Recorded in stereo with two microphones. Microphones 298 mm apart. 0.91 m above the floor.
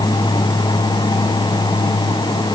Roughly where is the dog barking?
No dog barking in this recording.